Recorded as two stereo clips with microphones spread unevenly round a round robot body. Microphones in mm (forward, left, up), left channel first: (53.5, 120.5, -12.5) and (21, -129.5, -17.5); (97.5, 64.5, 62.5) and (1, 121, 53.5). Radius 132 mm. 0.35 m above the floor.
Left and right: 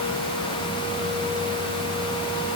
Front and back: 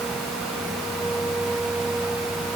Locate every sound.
Only background noise.